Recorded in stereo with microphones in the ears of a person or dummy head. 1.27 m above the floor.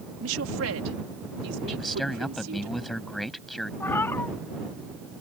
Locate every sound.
0.2 s a woman speaking: 85° right; by 2.7 s 70° right (ahead or behind)
1.7 s a man speaking: centre (ahead or behind)
3.8 s a cat meowing: 10° left (ahead or behind)